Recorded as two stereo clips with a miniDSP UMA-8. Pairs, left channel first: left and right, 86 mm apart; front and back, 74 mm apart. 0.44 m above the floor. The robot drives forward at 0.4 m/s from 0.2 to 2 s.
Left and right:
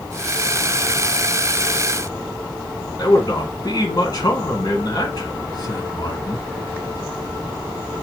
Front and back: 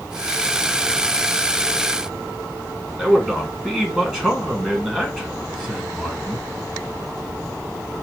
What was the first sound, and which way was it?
A man speaking, 105° left.